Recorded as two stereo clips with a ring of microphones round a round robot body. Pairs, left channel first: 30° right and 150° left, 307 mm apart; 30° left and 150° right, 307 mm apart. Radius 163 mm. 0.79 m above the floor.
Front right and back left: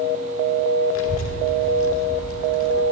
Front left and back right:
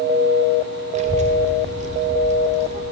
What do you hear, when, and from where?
0.9 s a child speaking: 80° right, 1.1 m